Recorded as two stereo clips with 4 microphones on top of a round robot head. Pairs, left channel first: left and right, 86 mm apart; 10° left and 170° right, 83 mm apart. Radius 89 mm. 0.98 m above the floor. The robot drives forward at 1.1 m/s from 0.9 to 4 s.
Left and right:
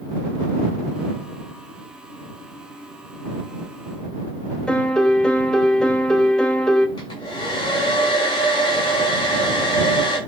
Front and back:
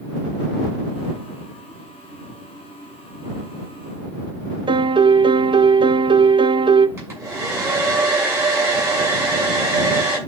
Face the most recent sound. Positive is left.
turn(degrees=130)